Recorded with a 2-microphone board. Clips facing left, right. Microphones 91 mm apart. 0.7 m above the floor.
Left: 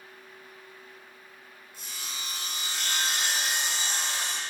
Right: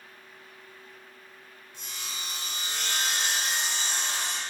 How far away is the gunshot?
No gunshot in this recording.